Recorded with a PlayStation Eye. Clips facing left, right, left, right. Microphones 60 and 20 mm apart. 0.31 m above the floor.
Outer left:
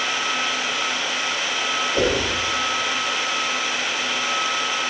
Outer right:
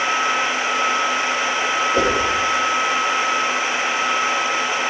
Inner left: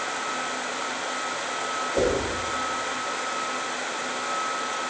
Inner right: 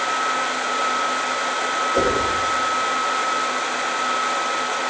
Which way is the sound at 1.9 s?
65° right (ahead or behind).